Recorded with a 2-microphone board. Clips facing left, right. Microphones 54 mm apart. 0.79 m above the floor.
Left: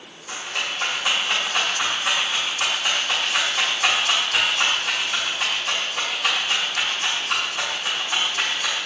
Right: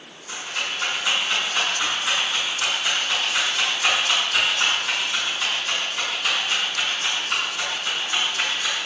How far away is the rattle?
About 1.1 m.